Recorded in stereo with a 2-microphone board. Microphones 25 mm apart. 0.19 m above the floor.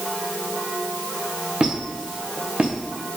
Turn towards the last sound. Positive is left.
turn(degrees=-45)  # may be behind; listen again after turning